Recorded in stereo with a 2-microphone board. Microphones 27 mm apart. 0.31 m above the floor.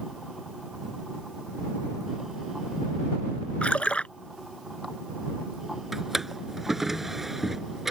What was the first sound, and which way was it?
A splash, 55° left (ahead or behind).